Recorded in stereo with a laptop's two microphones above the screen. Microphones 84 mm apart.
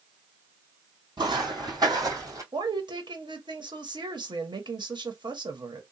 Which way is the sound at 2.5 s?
70° right (ahead or behind).